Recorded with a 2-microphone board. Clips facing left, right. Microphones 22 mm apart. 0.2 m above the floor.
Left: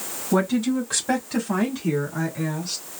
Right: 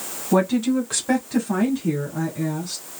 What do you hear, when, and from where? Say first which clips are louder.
0.3 s a woman speaking: right 2 dB; 15° right (ahead or behind), 1.3 m; by 2.8 s 35° left (ahead or behind), 1.7 m